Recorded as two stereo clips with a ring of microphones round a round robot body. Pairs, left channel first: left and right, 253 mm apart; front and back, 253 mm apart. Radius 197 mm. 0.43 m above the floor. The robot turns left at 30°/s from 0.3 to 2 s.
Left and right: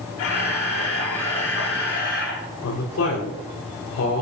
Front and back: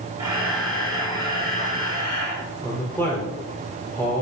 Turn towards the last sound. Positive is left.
turn(degrees=80)